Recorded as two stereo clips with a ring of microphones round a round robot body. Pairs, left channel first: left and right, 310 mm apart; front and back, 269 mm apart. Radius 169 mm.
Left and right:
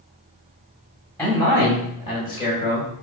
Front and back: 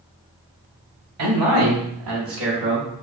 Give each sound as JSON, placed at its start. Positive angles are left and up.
{"t": 1.2, "sound": "a man speaking", "azimuth_deg": 175, "distance_m": 2.5}